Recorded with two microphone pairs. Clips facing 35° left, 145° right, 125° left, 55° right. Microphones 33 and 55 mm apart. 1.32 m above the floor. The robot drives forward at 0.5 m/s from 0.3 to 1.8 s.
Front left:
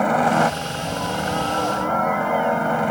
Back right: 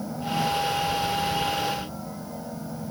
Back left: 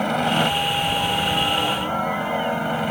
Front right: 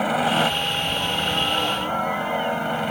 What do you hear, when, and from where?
0.0 s a helicopter: 30° left; by 2.9 s 35° left